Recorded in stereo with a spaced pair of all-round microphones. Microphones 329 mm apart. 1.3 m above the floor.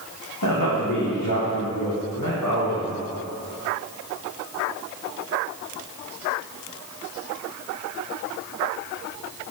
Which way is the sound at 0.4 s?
70° left (ahead or behind).